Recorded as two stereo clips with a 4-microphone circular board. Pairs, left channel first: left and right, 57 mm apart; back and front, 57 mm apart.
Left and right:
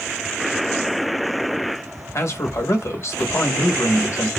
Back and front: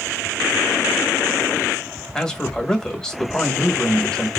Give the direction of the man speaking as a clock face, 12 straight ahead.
9 o'clock.